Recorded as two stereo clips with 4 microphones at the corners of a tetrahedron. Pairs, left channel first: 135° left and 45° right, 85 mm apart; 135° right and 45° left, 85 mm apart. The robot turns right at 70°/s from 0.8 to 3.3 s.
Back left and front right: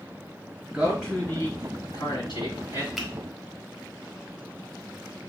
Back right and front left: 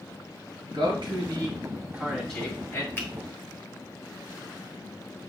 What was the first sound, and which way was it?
A man speaking, 40° left.